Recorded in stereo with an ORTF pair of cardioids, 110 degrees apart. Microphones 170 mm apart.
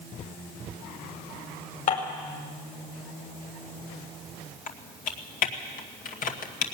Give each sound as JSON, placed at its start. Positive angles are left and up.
{"t": 1.9, "sound": "dishes clattering", "azimuth_deg": 55, "distance_m": 5.5}
{"t": 4.7, "sound": "typing on a keyboard", "azimuth_deg": 55, "distance_m": 2.0}